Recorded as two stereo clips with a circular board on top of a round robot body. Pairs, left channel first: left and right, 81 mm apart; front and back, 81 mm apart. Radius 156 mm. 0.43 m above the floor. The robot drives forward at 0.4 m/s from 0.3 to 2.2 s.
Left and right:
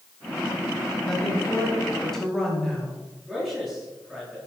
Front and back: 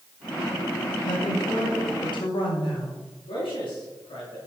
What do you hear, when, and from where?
1.1 s a woman speaking: 5° left, 4.5 m
3.3 s a man speaking: 10° right, 7.5 m